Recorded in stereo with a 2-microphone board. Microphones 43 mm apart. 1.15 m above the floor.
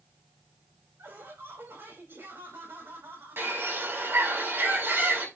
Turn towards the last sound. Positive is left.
turn(degrees=-65)  # may be behind; listen again after turning